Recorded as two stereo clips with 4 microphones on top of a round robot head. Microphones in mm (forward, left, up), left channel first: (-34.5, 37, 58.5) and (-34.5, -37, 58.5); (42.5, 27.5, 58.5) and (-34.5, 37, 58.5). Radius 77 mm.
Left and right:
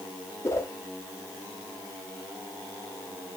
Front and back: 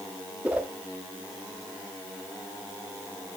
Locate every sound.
0.4 s a whoosh: 110° left, 0.7 m